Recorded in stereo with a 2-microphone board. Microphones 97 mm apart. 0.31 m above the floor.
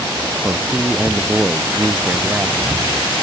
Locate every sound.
0.4 s a man speaking: 10° right (ahead or behind); by 2.7 s 15° right (ahead or behind)